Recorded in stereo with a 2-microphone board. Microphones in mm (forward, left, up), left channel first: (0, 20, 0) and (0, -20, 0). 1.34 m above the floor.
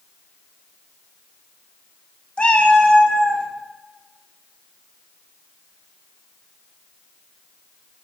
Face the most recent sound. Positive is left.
turn(degrees=20)  # may be behind; listen again after turning